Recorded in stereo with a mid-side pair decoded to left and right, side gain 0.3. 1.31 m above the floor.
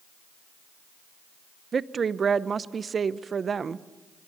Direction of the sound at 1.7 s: 60° right.